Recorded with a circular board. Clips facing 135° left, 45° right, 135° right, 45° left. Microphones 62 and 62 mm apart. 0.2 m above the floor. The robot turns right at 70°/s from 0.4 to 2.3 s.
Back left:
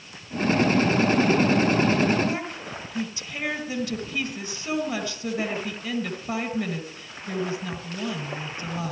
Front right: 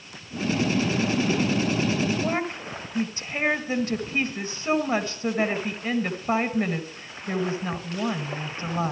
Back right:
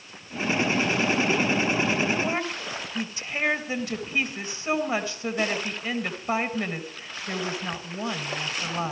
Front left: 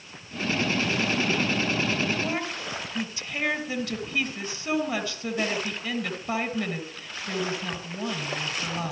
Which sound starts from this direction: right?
A woman speaking, at 2.2 s.